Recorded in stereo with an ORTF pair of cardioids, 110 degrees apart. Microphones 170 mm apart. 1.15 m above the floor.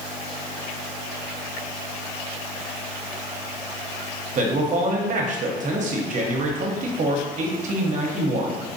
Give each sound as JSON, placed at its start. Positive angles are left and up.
{"t": 4.3, "sound": "a man speaking", "azimuth_deg": -50, "distance_m": 0.8}